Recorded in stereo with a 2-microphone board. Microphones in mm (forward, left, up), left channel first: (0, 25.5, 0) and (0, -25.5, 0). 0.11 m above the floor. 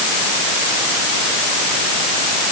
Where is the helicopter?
I don't hear a helicopter.